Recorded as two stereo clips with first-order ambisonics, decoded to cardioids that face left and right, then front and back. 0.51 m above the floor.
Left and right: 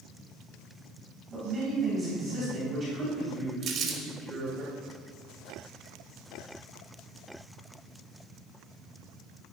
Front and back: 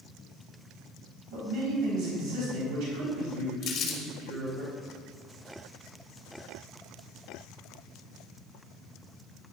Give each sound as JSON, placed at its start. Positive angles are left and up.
{"t": 1.3, "sound": "a man speaking", "azimuth_deg": -160, "distance_m": 3.0}
{"t": 3.6, "sound": "crumpling", "azimuth_deg": -50, "distance_m": 1.6}